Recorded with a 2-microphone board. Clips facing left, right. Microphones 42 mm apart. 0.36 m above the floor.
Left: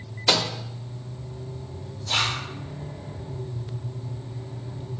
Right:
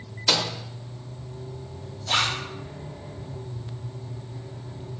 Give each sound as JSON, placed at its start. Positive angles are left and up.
{"t": 0.3, "sound": "a microwave", "side_deg": 15, "distance_m": 0.6}
{"t": 2.1, "sound": "a zipper", "side_deg": -50, "distance_m": 2.0}